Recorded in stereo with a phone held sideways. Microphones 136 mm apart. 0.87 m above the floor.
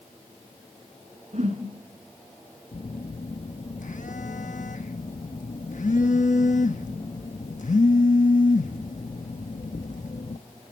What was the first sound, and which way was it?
A whoosh, 60° right (ahead or behind).